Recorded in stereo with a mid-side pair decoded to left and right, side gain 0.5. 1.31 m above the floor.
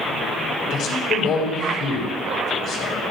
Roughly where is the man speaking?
Left.